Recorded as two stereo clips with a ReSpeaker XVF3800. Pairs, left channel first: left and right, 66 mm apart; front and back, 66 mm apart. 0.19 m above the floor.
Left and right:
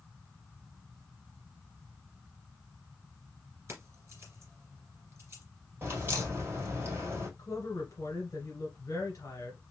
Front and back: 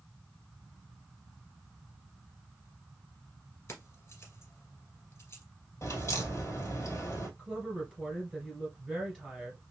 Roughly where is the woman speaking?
Left.